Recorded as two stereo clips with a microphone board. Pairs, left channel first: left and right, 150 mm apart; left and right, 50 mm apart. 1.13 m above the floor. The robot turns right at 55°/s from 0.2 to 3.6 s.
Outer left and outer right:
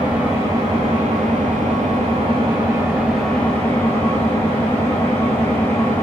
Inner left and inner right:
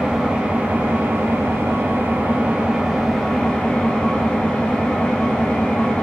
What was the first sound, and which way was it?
An engine running, 165° right.